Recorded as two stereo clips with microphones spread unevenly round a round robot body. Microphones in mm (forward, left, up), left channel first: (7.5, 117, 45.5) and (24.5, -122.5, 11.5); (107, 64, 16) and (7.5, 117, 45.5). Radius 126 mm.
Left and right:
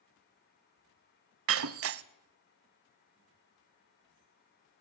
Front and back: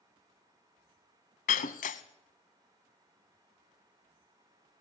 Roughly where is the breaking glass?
Ahead right.